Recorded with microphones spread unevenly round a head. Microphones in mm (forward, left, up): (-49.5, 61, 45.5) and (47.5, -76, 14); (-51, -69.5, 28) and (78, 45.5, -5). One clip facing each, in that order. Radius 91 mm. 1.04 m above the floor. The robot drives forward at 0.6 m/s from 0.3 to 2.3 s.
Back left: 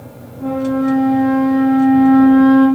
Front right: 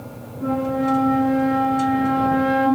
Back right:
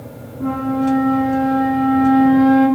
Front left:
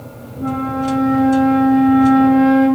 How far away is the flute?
About 4 m.